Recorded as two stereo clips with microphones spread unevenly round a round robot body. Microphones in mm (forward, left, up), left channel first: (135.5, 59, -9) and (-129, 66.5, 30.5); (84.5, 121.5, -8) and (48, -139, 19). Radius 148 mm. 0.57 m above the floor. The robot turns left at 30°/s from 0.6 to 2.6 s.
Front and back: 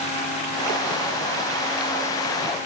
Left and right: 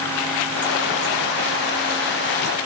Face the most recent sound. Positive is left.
No sound to turn to.